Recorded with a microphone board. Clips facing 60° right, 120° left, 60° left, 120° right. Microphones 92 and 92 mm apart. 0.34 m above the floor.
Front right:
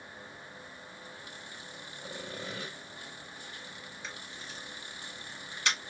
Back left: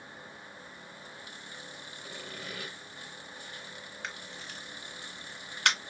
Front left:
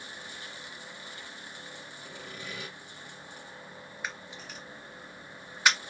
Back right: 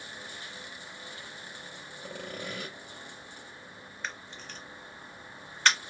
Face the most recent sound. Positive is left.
turn(degrees=140)